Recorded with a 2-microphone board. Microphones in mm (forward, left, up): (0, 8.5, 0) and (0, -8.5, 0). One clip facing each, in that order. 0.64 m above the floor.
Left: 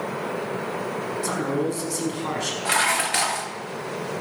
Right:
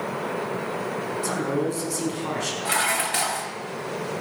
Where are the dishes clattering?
15° left (ahead or behind), 0.6 m.